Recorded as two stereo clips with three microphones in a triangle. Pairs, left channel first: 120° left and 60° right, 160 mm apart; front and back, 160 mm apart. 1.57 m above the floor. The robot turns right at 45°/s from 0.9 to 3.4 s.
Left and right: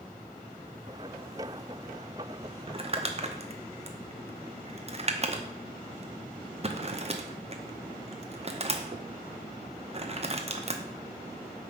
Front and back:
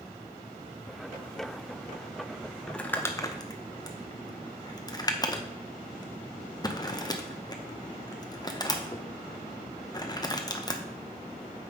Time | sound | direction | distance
2.7 | crumpling | 85° right | 0.8 m